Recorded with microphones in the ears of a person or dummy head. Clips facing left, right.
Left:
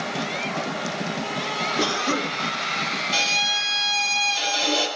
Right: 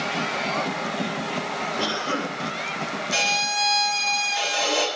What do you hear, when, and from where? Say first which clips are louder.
1.8 s a cough: left 4 dB; 20° left (ahead or behind), 3.5 m
3.1 s a violin: right 2 dB; 40° right (ahead or behind), 6.5 m